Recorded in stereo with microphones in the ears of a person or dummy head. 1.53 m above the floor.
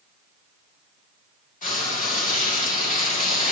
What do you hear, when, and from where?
1.6 s frying: 40° left (ahead or behind), 2 m